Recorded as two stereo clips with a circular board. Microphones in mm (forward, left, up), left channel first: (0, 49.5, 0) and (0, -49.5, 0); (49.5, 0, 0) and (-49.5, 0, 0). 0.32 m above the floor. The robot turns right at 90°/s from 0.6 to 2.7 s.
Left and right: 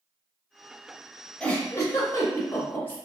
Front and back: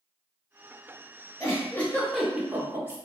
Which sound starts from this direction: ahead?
A giggle, at 1.4 s.